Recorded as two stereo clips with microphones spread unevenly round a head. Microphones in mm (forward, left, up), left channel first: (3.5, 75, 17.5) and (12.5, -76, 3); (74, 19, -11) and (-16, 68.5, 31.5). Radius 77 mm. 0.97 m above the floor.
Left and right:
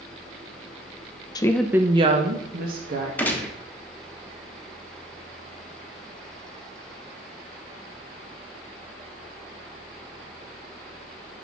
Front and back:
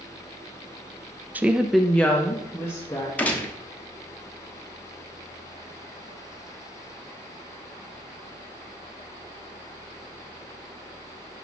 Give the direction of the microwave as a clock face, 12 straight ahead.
No microwave in this recording.